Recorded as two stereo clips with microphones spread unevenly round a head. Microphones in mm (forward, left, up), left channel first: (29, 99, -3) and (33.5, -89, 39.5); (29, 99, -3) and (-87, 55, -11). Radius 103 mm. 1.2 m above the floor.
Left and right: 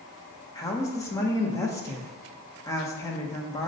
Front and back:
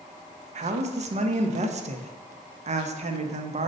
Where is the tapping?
I don't hear tapping.